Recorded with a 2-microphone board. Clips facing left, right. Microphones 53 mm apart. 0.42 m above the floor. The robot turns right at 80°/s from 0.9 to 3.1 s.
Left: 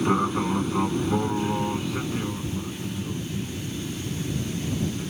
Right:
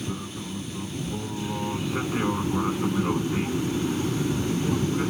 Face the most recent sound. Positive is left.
turn(degrees=-75)